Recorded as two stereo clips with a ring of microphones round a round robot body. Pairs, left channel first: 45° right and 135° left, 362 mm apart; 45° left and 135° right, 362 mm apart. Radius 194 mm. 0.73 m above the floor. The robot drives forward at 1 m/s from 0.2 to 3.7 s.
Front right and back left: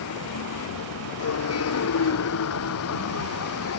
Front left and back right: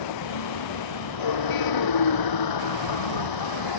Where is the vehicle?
10° left.